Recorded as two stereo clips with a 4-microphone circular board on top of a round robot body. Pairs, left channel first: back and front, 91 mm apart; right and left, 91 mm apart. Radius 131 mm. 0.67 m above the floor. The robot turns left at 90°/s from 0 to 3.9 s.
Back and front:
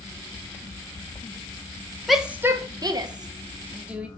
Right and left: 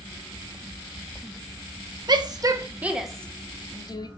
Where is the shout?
90° left, 1.6 m; by 4.1 s 75° right, 1.6 m.